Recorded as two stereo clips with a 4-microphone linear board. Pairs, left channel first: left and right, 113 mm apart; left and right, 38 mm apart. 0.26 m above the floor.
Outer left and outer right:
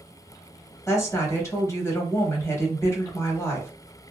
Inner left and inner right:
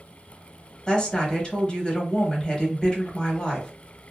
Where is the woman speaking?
25° left (ahead or behind), 1.0 m.